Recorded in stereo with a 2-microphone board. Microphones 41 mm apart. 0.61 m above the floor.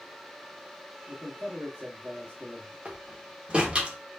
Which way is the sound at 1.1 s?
45° right (ahead or behind).